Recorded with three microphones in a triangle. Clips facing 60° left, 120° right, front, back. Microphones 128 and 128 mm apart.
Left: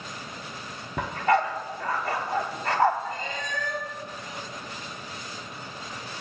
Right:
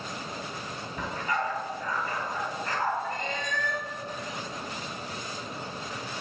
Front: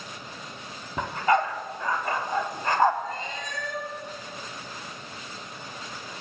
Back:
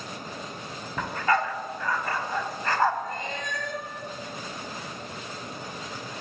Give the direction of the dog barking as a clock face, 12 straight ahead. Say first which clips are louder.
Left 8 dB, front 2 dB; 10 o'clock.